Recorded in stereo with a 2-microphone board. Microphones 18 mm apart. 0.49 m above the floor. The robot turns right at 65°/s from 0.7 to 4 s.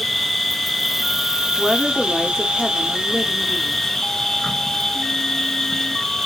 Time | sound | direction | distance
0.0 | an insect | 160° left | 1.4 m
1.6 | a woman speaking | 10° left (ahead or behind) | 0.7 m